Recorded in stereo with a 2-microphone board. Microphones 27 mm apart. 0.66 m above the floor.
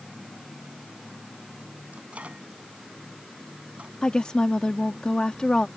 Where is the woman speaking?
35° left (ahead or behind).